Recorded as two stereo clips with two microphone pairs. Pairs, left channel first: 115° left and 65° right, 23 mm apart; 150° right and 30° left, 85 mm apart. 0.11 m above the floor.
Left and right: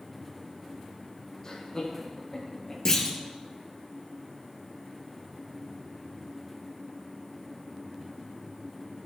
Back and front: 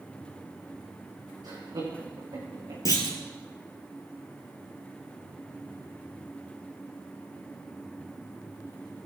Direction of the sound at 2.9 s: 175° left.